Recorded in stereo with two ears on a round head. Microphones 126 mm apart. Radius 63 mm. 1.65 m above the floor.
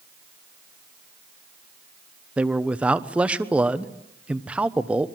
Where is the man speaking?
10° right (ahead or behind), 1.1 m.